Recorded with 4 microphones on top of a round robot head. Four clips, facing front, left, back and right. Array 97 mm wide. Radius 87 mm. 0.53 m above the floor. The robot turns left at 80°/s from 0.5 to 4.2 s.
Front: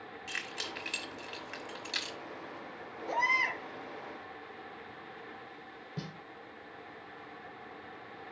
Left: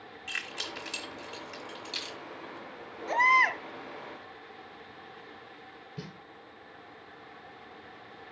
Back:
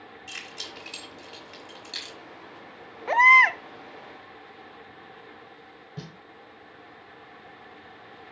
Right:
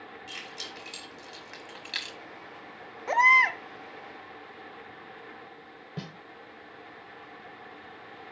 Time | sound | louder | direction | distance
0.3 | keys jangling | left 3 dB, front 2 dB | 50° left | 1.5 m
3.1 | a baby crying | right 2 dB, back 13 dB | 155° right | 0.6 m
6.0 | a snare drum | right 3 dB, back 1 dB | 70° right | 1.0 m